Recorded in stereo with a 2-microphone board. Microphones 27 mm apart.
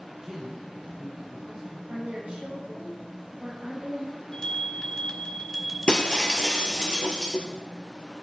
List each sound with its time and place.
0.2 s a man speaking: 25° right (ahead or behind), 2.5 m
1.9 s a woman speaking: 55° right (ahead or behind), 4 m
4.3 s a bell: 25° left (ahead or behind), 2.5 m
5.9 s breaking glass: 35° left (ahead or behind), 1.5 m